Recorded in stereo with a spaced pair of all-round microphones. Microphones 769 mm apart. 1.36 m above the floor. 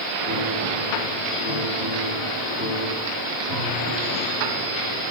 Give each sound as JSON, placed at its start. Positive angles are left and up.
{"t": 0.2, "sound": "a piano", "side_deg": 65, "distance_m": 4.5}